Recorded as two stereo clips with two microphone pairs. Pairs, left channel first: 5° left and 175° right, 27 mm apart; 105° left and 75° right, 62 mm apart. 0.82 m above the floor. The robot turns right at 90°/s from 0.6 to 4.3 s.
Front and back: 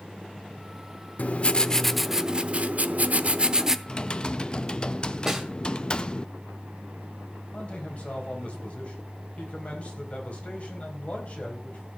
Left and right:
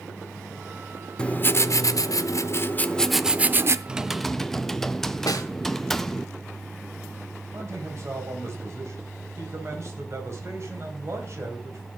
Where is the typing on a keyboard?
20° right, 0.5 m; by 6.3 s 15° left, 0.5 m.